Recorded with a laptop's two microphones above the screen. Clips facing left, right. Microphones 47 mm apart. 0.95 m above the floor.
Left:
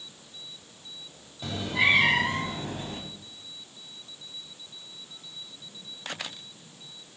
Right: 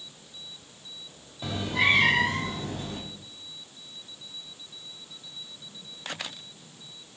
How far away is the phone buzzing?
No phone buzzing in this recording.